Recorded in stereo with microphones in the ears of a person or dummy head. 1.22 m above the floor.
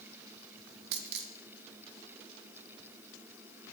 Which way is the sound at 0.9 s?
60° right (ahead or behind).